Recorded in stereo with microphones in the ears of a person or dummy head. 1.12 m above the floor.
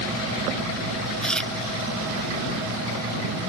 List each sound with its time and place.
1.2 s chewing: 5° left (ahead or behind)